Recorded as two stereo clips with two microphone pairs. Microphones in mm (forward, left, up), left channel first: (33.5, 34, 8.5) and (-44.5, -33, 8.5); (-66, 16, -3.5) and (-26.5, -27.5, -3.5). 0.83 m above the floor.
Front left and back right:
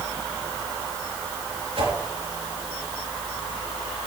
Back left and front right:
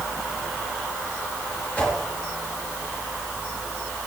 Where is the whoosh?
160° right, 4.5 m.